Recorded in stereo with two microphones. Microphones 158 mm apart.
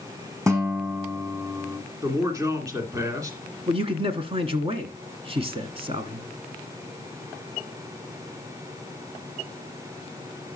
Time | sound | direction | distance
0.5 | a guitar | 20° right (ahead or behind) | 2.5 m
2.0 | a man speaking | 20° right (ahead or behind) | 1.9 m
3.7 | a man speaking | 35° right (ahead or behind) | 1.3 m